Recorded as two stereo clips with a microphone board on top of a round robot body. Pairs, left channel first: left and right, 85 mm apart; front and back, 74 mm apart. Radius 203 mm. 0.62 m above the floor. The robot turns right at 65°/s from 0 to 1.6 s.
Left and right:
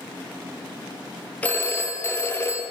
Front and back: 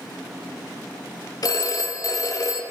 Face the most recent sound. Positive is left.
turn(degrees=30)